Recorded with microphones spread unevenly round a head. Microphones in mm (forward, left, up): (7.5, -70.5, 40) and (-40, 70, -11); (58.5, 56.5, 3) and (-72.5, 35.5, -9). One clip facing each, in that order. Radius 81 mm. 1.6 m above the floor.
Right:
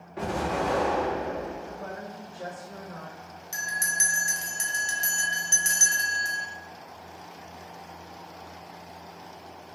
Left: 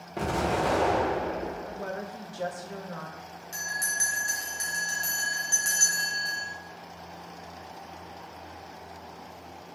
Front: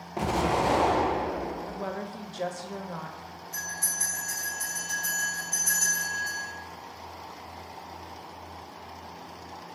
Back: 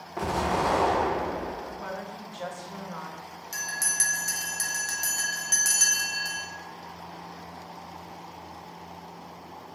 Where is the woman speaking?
55° left, 0.5 m.